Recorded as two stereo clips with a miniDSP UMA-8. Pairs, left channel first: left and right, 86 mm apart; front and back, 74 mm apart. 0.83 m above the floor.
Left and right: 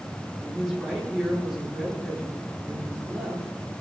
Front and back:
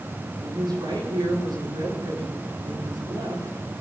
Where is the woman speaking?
175° left, 10 m.